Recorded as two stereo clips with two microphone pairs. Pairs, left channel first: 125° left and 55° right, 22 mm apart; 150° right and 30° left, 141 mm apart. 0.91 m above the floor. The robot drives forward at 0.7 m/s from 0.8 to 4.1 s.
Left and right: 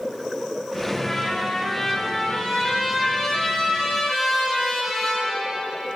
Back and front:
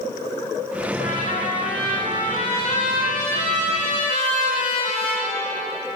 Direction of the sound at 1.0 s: 165° right.